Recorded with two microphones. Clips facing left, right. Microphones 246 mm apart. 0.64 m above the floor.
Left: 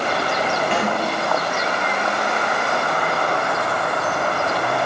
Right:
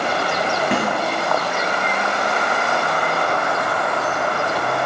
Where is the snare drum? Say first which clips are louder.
Right 2 dB; 55° right (ahead or behind), 3 m.